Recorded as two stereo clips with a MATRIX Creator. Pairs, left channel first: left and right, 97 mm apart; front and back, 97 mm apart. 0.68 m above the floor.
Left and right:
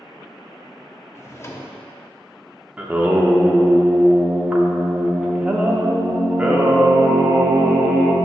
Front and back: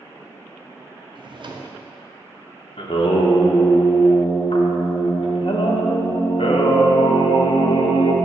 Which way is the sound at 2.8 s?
15° right.